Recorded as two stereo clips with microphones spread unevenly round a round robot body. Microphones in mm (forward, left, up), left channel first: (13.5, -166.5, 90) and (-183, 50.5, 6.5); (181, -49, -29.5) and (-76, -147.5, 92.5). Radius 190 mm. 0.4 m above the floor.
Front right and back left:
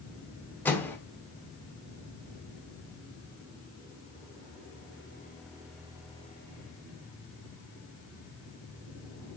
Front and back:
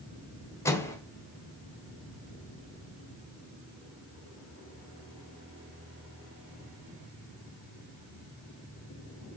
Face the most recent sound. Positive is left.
turn(degrees=55)